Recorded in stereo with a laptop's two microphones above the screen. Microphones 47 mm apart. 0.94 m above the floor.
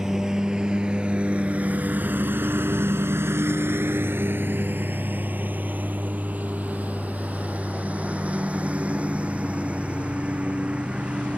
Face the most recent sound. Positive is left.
turn(degrees=-25)  # may be behind; listen again after turning